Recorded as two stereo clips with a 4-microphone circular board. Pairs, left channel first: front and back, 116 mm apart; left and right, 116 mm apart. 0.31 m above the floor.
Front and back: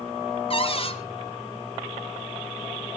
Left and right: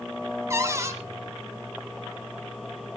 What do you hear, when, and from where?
0.5 s a cupboard door: 25° right, 1.7 m